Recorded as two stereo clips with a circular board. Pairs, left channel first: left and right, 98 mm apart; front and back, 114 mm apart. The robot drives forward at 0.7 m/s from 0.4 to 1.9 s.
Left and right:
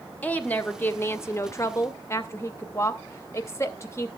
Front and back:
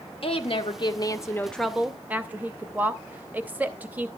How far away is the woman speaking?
About 1.1 m.